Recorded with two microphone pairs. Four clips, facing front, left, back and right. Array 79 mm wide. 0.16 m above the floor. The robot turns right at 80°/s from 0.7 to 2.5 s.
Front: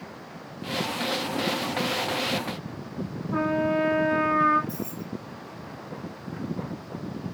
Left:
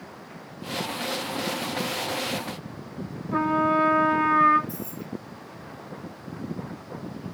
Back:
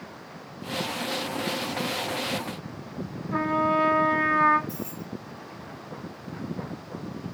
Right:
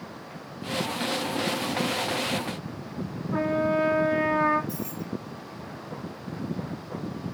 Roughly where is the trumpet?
Behind left.